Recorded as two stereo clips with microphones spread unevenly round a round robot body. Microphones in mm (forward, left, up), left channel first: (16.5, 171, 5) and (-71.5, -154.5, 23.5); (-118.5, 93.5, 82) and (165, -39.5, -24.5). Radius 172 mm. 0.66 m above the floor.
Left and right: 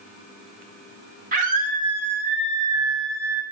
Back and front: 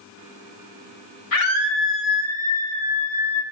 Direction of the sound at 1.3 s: 170° right.